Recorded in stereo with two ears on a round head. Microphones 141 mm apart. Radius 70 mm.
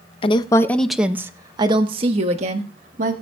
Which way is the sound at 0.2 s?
30° left (ahead or behind).